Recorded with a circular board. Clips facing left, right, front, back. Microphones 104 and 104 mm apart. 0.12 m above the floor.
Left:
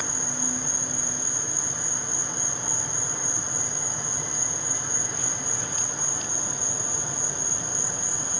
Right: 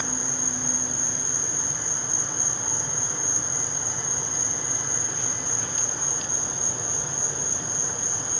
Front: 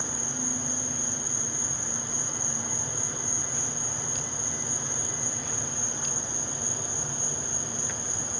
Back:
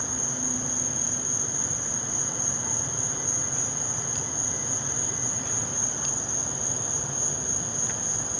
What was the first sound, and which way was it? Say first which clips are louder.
An insect: even, back 1 dB; 175° left.